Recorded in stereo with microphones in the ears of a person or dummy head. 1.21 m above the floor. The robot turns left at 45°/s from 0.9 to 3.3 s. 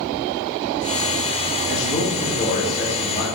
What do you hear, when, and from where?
1.7 s a man speaking: 70° left, 2.5 m; by 3.3 s straight ahead, 2.5 m